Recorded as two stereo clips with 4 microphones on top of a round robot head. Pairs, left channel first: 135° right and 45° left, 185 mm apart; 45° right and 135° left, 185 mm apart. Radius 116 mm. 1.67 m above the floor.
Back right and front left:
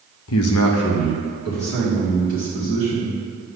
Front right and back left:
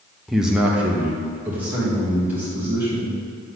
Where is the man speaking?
135° right, 0.6 m; by 3.2 s 140° right, 5 m.